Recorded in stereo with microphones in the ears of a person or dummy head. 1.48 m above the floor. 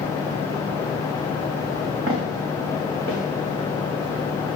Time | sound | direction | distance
2.1 | footsteps | 60° right (ahead or behind) | 4.5 m